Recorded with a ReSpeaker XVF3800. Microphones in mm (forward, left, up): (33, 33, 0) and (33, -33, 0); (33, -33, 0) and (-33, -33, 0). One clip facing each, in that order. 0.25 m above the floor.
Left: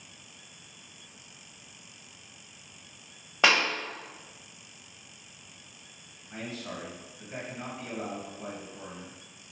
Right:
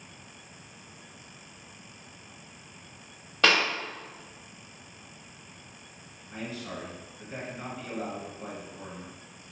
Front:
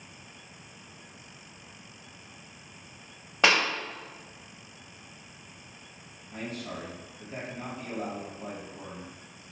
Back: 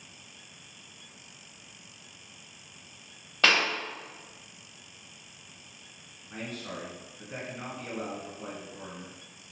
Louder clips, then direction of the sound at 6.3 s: Right 1 dB, front 1 dB; 175° left.